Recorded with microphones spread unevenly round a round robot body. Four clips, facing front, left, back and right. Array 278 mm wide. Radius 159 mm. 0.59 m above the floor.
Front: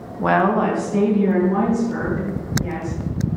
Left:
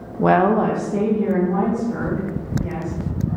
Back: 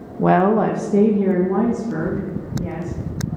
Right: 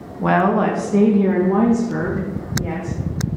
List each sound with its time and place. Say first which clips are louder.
0.2 s a woman speaking: left 1 dB, back 2 dB; 115° left, 0.6 m; by 3.0 s 130° right, 1.5 m